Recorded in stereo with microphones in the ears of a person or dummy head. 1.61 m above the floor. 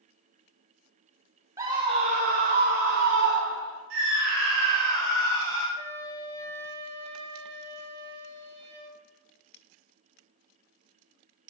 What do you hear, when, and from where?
1.6 s a scream: 20° right (ahead or behind), 0.7 m; by 3.8 s 75° right (ahead or behind), 1.5 m
3.9 s a scream: 75° right (ahead or behind), 2.5 m
5.8 s a flute: 40° right (ahead or behind), 1.6 m